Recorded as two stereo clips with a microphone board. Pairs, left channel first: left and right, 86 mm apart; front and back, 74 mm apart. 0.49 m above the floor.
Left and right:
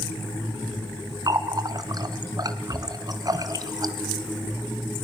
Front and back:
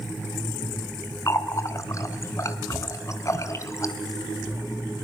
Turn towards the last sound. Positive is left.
turn(degrees=-50)